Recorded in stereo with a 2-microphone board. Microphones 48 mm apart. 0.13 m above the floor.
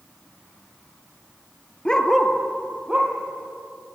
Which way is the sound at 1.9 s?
20° left (ahead or behind).